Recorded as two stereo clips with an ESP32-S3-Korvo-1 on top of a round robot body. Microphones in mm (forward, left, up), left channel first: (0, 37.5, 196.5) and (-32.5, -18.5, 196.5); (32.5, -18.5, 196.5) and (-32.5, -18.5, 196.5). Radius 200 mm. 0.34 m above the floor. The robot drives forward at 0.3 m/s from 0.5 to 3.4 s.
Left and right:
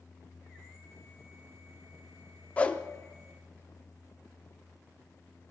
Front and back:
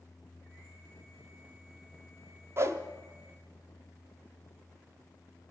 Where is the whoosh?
130° left, 0.6 m; by 2.8 s 135° left, 0.7 m.